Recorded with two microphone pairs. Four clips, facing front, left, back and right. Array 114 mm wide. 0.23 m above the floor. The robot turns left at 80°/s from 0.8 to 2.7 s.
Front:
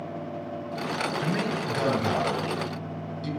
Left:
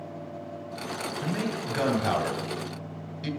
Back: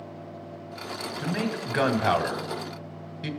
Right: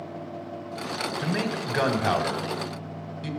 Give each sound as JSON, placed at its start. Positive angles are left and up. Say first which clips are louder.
{"t": 1.2, "sound": "a man speaking", "louder": "right 2 dB, front 2 dB", "azimuth_deg": -80, "distance_m": 1.3}